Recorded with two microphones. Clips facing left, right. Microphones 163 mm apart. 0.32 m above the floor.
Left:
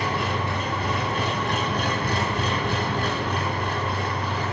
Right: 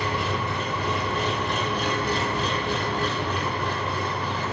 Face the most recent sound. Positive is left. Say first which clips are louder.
# left 1 dB
turn(degrees=60)  # may be behind; listen again after turning